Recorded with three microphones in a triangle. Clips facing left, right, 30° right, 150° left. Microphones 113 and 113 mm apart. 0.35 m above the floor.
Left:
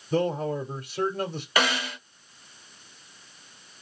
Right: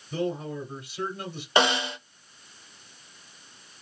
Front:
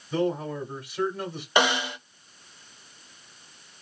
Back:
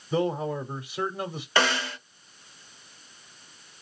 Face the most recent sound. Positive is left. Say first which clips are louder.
# right 3 dB, front 2 dB
turn(degrees=-75)